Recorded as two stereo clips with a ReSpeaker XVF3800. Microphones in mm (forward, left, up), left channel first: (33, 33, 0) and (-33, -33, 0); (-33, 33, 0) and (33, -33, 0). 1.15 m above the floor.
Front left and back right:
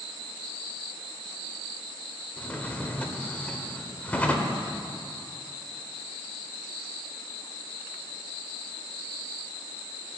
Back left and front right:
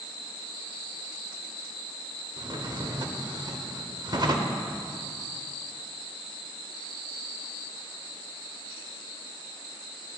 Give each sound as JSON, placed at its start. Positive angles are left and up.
{"t": 2.4, "sound": "a drawer", "azimuth_deg": -25, "distance_m": 1.2}